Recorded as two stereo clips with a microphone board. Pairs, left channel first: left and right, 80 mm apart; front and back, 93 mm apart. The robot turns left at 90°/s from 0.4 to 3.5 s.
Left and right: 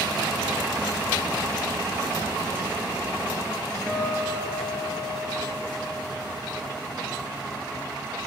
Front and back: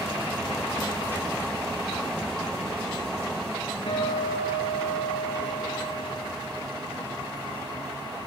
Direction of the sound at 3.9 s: 10° left.